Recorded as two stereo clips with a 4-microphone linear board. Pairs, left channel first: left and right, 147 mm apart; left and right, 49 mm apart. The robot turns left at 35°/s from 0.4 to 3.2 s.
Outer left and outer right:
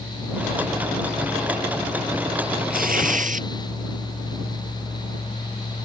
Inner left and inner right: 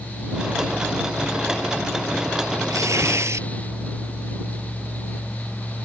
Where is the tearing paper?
80° right; by 3.5 s 60° right (ahead or behind).